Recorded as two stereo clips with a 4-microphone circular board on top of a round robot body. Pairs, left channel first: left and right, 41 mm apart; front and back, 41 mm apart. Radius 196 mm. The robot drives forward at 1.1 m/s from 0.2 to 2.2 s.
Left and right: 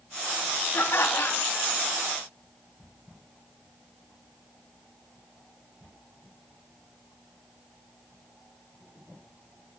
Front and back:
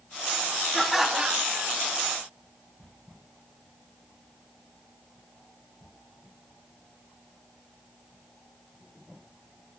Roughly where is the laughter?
Left.